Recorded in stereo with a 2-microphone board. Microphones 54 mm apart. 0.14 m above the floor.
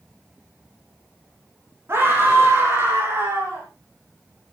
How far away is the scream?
About 9.5 m.